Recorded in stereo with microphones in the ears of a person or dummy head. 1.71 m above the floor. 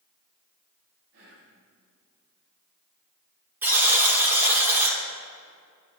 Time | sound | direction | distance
1.1 | whispering | 75° right (ahead or behind) | 2.5 m
3.6 | a buzzer | 10° right (ahead or behind) | 2.5 m